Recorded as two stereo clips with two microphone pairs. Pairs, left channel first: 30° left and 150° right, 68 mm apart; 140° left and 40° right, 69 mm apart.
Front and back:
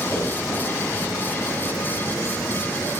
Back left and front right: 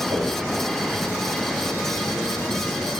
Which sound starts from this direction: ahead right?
A whoosh, at 0.1 s.